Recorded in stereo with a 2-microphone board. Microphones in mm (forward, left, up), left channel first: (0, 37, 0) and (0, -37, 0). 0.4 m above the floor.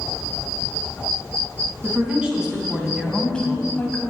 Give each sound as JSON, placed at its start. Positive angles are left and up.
{"t": 1.8, "sound": "a woman speaking", "side_deg": -20, "distance_m": 4.0}